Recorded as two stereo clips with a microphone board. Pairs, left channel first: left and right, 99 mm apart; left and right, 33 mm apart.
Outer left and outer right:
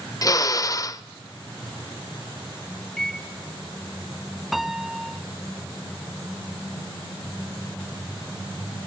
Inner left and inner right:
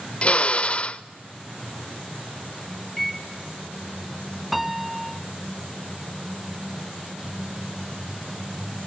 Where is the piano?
Centre (ahead or behind), 0.6 m.